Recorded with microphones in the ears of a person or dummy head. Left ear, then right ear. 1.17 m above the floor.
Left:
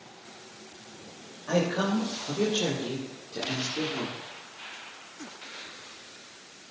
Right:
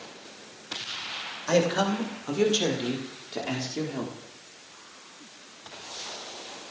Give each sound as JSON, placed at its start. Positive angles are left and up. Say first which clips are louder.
{"t": 1.5, "sound": "a man speaking", "louder": "right 3 dB", "side_deg": -65, "distance_m": 2.5}